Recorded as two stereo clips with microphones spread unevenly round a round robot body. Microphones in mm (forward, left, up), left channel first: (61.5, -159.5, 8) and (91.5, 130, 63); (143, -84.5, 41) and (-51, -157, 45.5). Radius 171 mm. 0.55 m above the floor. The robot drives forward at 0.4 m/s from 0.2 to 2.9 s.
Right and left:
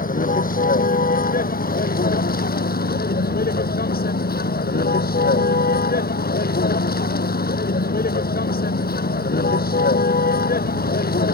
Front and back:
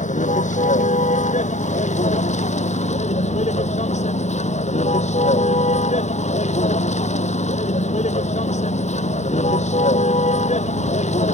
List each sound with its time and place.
0.0 s a vehicle: 35° right